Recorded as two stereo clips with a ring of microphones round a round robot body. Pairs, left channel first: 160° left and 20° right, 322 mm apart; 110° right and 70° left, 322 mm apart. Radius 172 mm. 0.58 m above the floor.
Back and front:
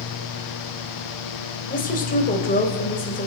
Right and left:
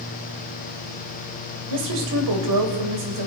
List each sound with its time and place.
1.7 s a woman speaking: 90° left, 3 m